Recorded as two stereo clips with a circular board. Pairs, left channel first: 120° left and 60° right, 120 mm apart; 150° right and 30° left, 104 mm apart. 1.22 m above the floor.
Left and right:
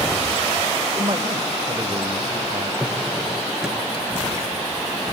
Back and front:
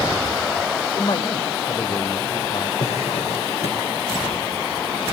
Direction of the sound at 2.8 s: 145° right.